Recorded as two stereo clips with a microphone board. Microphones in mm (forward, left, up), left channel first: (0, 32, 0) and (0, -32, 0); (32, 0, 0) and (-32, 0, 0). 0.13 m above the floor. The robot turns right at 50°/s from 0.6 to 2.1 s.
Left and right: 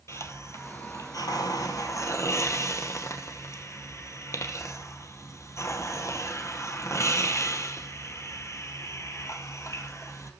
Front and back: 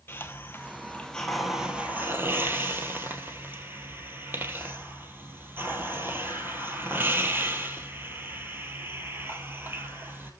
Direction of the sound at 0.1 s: 50° left.